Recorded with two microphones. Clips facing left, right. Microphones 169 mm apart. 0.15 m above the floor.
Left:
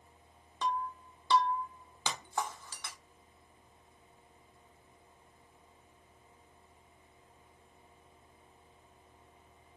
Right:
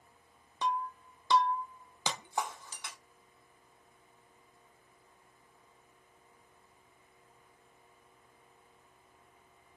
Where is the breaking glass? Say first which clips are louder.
Right 1 dB; 15° right (ahead or behind), 0.8 m.